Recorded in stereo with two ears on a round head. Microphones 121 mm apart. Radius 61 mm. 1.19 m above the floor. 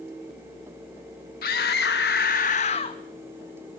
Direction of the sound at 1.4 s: 80° left.